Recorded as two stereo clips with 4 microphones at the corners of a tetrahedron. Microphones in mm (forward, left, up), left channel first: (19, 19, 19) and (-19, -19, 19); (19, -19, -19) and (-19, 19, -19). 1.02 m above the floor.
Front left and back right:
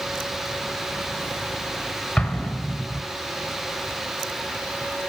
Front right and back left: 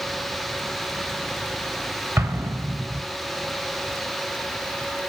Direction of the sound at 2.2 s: 115° left.